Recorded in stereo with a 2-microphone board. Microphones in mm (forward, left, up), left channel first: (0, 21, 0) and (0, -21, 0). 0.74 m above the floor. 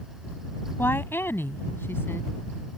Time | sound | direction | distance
0.8 | a woman speaking | 65° left (ahead or behind) | ?